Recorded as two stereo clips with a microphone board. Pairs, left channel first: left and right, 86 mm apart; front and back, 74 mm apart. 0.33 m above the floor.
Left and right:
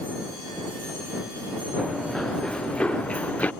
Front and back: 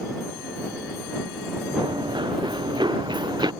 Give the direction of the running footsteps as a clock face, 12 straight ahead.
6 o'clock.